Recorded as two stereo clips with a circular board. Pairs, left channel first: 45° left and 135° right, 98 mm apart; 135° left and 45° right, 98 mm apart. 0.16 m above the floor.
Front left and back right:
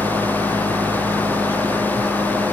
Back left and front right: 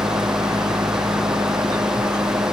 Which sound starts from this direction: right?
An engine running, at 0.0 s.